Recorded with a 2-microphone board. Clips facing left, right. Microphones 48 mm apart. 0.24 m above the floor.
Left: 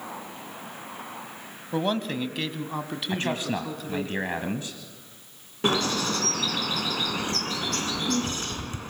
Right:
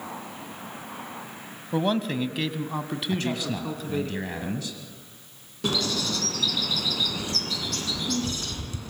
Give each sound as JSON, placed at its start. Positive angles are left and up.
{"t": 1.7, "sound": "a man speaking", "side_deg": 0, "distance_m": 1.2}
{"t": 3.1, "sound": "a man speaking", "side_deg": 30, "distance_m": 1.7}
{"t": 5.6, "sound": "a bird", "side_deg": 35, "distance_m": 2.5}